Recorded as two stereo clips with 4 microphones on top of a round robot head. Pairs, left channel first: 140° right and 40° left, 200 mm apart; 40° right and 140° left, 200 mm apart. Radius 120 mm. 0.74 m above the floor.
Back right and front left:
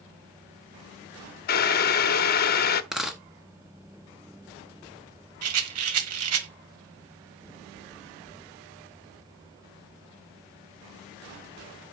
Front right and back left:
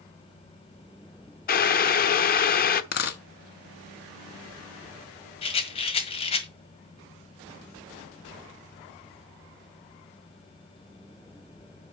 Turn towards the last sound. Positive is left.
turn(degrees=25)